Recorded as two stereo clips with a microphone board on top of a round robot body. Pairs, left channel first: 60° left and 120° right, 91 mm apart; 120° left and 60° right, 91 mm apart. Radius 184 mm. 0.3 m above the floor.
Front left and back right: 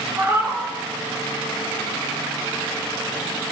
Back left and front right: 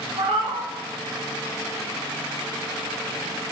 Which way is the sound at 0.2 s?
60° right.